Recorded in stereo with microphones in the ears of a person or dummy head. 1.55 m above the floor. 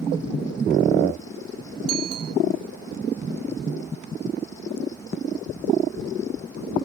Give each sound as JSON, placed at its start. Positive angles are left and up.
{"t": 1.9, "sound": "a bicycle bell", "side_deg": -65}